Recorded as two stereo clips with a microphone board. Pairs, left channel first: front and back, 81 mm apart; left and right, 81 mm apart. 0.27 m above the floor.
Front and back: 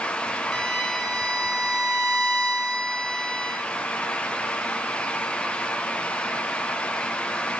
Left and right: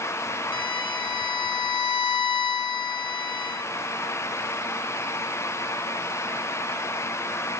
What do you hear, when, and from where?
0.5 s a violin: 80° left, 0.7 m